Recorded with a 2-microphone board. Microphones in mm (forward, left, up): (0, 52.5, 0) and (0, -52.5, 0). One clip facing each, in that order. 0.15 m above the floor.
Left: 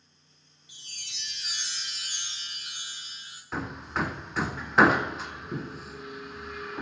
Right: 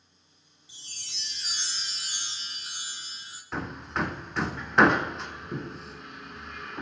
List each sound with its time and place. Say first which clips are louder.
0.7 s a chime: even; 30° right (ahead or behind), 1.9 m
3.5 s hammering: even; centre (ahead or behind), 0.8 m